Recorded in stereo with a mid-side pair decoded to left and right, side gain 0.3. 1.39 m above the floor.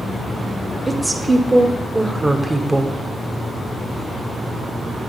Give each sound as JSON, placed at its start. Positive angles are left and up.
{"t": 0.9, "sound": "a woman speaking", "azimuth_deg": -25, "distance_m": 0.9}